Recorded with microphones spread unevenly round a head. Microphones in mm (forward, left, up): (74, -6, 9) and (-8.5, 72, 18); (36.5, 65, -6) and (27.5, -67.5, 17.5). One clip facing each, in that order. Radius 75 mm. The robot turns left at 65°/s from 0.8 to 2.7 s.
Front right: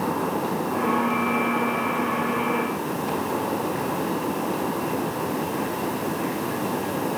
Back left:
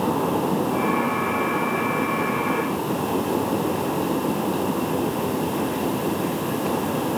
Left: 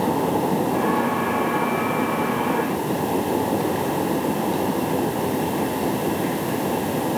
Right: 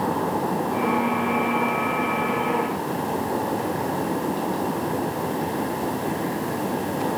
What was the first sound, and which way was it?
Only background noise.